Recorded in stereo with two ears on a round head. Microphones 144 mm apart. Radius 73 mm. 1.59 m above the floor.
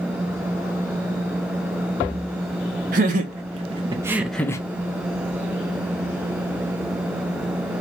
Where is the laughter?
60° right (ahead or behind), 0.9 m; by 4.6 s 20° left (ahead or behind), 0.5 m.